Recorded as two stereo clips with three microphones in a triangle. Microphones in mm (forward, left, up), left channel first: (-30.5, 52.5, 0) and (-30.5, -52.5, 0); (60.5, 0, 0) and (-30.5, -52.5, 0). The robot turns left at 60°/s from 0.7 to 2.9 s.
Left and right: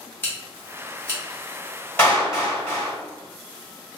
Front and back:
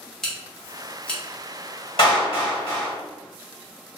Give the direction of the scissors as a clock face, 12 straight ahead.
8 o'clock.